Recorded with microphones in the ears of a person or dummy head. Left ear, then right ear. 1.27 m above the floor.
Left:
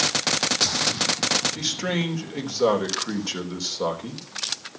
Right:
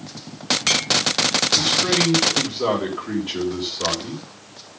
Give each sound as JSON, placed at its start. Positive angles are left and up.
{"t": 1.6, "sound": "a man speaking", "side_deg": 80, "distance_m": 4.0}